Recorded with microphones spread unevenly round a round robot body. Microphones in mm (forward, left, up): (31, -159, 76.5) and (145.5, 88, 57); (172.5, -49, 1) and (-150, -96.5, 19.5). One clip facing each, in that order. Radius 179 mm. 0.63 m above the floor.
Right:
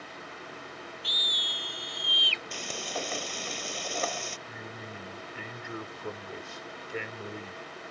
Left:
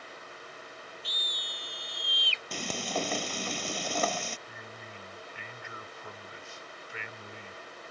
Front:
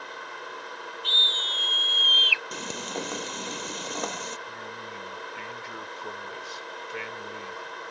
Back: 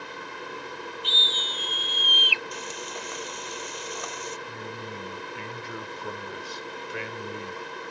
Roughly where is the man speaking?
Behind.